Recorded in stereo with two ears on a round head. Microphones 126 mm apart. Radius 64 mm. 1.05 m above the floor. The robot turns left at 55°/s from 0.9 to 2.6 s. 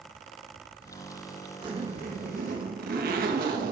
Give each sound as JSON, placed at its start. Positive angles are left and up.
{"t": 1.6, "sound": "a zipper", "azimuth_deg": -35, "distance_m": 1.4}